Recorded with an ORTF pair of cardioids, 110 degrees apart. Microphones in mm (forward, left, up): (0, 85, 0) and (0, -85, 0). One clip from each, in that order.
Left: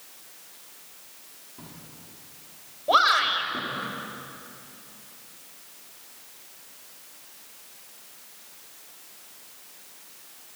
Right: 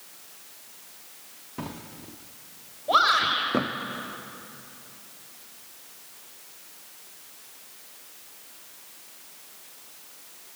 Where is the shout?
25° left, 6.5 m.